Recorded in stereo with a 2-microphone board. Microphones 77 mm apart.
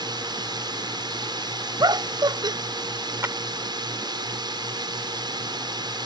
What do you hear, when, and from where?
0.0 s a drone: 70° right (ahead or behind)
1.8 s laughter: 70° right (ahead or behind)
3.2 s a clap: 35° right (ahead or behind)